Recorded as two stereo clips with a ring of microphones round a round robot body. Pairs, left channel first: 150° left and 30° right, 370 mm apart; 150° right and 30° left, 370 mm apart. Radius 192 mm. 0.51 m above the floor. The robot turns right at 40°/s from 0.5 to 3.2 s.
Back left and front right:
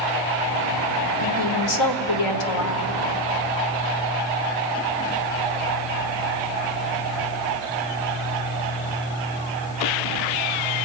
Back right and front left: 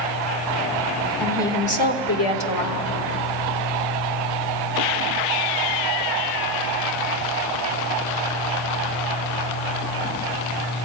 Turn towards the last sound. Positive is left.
turn(degrees=-160)